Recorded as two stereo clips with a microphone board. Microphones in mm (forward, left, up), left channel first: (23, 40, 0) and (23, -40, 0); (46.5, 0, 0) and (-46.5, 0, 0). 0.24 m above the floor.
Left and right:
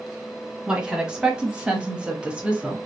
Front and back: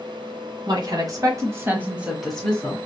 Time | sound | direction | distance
0.7 | a woman speaking | 165° right | 1.5 m